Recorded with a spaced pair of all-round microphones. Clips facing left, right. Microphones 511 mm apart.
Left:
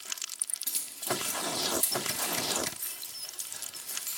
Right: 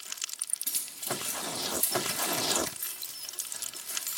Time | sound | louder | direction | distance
0.7 | keys jangling | left 3 dB | 25° right (ahead or behind) | 1.0 m